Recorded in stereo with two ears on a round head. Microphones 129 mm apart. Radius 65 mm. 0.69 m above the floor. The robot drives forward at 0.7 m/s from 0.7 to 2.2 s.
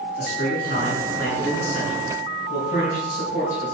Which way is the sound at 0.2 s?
65° left (ahead or behind).